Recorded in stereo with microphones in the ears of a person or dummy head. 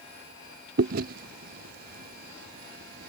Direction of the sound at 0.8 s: 45° right (ahead or behind).